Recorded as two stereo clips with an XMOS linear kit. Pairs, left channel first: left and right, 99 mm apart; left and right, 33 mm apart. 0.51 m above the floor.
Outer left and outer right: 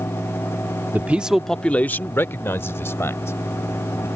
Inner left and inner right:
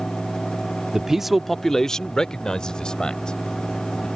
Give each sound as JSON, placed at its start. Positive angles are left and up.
{"t": 0.9, "sound": "a man speaking", "side_deg": -20}